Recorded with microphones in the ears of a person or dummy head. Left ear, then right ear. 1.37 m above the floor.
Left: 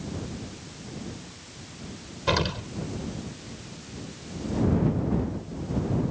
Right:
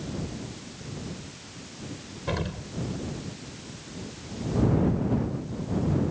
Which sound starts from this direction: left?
An explosion, at 2.3 s.